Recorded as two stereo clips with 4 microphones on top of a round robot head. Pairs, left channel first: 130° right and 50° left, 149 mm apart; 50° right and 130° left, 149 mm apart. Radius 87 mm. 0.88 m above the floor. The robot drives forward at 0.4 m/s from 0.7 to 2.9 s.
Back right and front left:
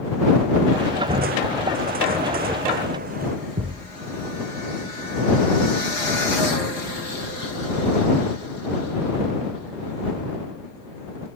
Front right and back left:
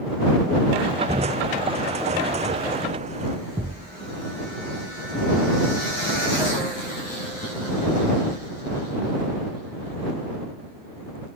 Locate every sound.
1.1 s crushing: 80° left
3.6 s a thud: 65° left